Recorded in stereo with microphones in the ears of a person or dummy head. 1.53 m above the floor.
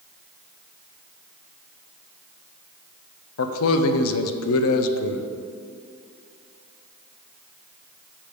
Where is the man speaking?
80° left, 0.6 m.